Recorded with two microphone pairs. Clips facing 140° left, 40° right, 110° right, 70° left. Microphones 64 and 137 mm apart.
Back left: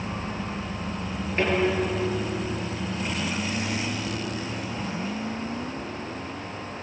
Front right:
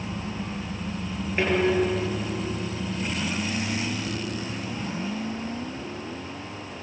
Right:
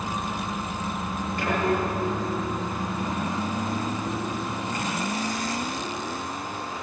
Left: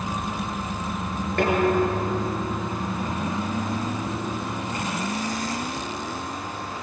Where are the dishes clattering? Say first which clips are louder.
Front right 1 dB, left 5 dB; 45° left, 8.5 m.